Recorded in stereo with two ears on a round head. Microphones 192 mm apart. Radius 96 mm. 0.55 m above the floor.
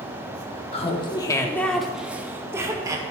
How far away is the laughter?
About 0.7 m.